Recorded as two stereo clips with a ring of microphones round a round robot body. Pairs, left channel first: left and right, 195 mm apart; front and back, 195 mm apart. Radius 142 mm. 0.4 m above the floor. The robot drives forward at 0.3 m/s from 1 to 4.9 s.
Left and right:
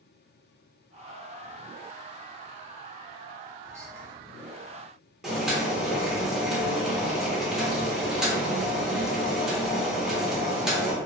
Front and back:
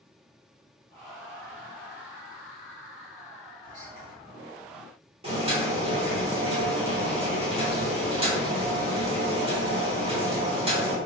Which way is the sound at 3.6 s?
140° right.